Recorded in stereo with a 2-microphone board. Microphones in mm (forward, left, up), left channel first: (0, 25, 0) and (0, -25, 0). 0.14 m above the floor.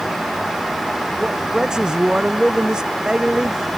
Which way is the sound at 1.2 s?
15° right (ahead or behind).